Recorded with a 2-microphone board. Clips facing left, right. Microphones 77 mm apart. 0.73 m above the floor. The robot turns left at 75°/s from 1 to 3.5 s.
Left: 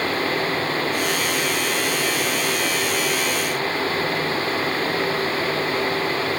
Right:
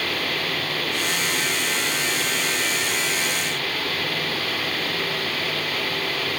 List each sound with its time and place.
Only background noise.